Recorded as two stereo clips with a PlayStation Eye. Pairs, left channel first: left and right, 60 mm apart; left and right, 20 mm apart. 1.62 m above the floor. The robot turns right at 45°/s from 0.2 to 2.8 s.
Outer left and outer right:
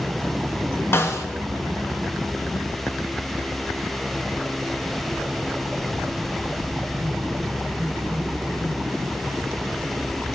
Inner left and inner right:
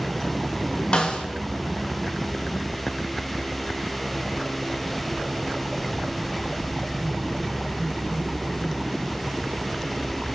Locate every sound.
0.9 s a snare drum: 40° left (ahead or behind), 1.0 m; by 1.3 s 55° left (ahead or behind), 1.0 m